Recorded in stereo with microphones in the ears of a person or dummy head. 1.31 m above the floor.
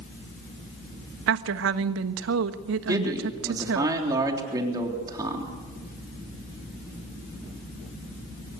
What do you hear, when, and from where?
1.3 s a woman speaking: 85° right, 1.2 m
2.9 s a man speaking: 15° right (ahead or behind), 3.5 m